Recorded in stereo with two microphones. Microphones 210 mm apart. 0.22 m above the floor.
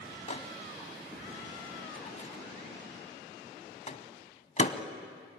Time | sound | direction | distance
0.3 | a microwave | 35° left (ahead or behind) | 1.3 m